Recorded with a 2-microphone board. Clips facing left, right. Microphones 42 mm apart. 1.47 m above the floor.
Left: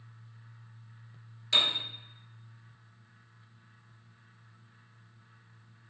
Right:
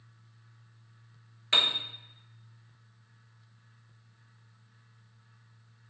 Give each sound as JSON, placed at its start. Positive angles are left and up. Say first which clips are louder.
{"t": 1.5, "sound": "a piano", "louder": "right 1 dB", "side_deg": -35, "distance_m": 0.6}